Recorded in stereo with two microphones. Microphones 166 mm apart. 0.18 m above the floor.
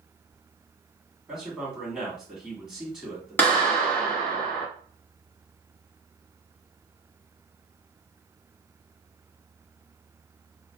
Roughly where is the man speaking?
Centre.